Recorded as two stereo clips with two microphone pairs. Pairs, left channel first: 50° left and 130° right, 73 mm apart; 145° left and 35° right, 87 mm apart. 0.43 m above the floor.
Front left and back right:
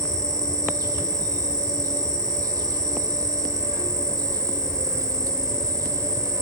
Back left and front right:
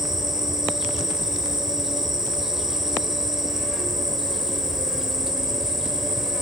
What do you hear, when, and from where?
0.0 s an insect: 125° right, 1.0 m